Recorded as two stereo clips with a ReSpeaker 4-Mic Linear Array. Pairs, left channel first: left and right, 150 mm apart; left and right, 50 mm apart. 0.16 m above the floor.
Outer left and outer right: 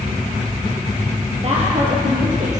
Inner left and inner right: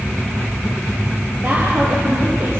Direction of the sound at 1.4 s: 45° right (ahead or behind).